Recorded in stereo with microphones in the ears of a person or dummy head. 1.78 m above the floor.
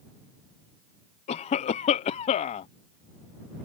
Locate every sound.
1.3 s a cough: 35° left (ahead or behind)